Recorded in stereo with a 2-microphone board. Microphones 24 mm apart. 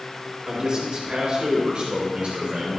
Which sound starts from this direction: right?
A man speaking, at 0.5 s.